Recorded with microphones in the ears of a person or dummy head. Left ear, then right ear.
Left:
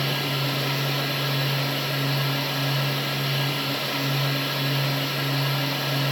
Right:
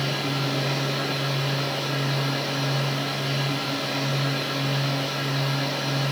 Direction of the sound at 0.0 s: 10° left (ahead or behind).